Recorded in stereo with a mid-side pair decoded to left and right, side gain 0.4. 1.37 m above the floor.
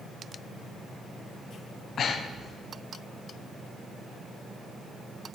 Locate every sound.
2.0 s breathing: 60° left, 0.5 m